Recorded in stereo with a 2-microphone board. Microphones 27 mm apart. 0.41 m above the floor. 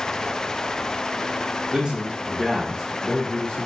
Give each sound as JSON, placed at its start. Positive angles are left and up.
{"t": 1.7, "sound": "a man speaking", "side_deg": -35, "distance_m": 1.2}